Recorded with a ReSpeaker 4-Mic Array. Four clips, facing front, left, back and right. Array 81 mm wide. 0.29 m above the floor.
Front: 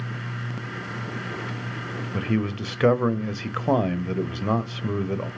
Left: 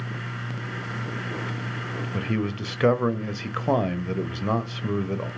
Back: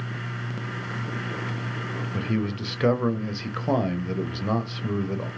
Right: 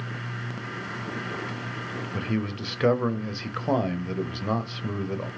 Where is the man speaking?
35° left, 0.9 m.